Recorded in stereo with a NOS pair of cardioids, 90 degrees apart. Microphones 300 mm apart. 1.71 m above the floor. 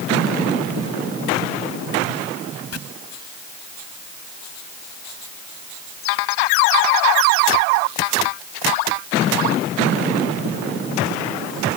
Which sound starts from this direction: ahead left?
Chopping, at 2.7 s.